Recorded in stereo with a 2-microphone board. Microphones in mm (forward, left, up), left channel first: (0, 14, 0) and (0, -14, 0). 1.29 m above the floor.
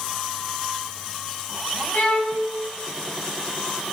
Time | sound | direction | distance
1.9 | a violin | 75° left (ahead or behind) | 1.6 m